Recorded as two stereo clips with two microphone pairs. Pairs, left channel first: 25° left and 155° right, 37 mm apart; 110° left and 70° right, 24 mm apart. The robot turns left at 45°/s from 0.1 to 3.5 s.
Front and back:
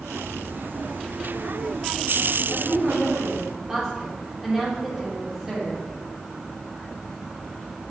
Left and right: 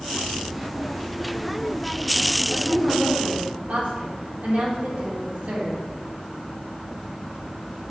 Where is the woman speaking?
35° right, 4 m; by 5.8 s 75° right, 4 m.